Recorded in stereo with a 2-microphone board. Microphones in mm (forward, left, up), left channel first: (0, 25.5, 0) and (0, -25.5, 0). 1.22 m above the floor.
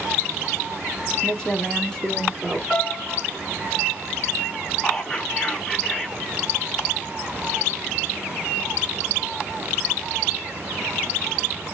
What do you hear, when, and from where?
1.2 s a woman speaking: 10° left (ahead or behind), 2 m; by 2.6 s 15° left (ahead or behind), 3 m
2.7 s a piano: 10° left (ahead or behind), 3.5 m
4.8 s whispering: 5° left (ahead or behind), 3.5 m